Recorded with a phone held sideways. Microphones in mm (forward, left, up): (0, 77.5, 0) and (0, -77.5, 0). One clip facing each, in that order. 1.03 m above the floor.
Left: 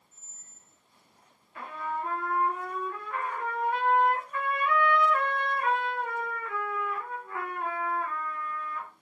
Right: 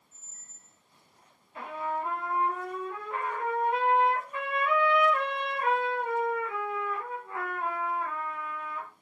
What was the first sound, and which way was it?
A squeak, 55° right (ahead or behind).